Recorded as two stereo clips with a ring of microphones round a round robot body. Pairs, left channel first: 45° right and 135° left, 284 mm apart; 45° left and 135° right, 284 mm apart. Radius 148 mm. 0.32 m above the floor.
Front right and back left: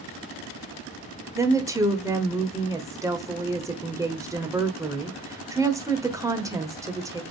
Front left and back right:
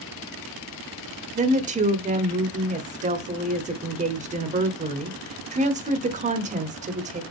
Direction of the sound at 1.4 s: 160° right.